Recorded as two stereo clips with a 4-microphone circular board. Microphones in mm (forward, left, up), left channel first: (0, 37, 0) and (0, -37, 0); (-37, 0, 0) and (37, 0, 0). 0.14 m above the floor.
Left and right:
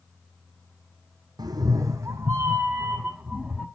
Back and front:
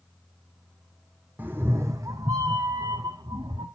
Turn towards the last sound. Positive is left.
turn(degrees=-5)